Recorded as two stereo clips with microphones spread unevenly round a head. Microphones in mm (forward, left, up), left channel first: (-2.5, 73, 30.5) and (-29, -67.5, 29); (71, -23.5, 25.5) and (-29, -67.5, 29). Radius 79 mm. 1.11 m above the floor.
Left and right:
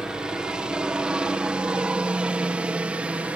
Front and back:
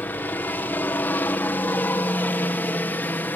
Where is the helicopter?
25° right; by 3.4 s 30° right.